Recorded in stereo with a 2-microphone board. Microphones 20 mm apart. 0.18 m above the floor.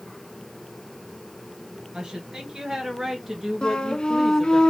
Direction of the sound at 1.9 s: 40° right (ahead or behind).